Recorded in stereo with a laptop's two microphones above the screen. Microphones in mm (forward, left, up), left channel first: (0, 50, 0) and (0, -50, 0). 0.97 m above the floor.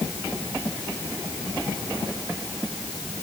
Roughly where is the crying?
I don't hear crying.